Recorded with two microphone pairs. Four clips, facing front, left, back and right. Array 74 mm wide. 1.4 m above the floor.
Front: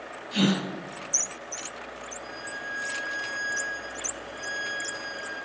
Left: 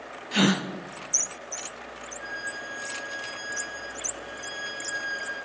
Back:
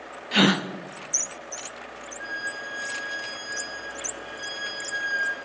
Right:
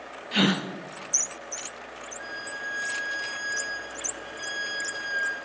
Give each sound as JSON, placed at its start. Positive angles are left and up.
{"t": 0.3, "sound": "a gasp", "azimuth_deg": 175, "distance_m": 0.9}
{"t": 2.2, "sound": "a violin", "azimuth_deg": -135, "distance_m": 6.0}